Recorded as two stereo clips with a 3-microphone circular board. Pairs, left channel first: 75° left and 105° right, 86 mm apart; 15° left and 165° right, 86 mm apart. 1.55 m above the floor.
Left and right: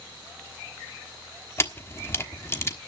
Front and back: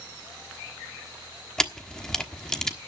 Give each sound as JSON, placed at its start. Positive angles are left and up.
{"t": 1.6, "sound": "a camera shutter", "azimuth_deg": 95, "distance_m": 1.2}